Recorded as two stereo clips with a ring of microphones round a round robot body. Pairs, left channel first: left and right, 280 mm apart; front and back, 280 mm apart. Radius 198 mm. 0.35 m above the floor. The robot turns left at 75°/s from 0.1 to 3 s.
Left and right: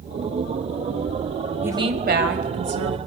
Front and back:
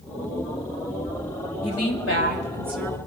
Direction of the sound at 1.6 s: 10° right.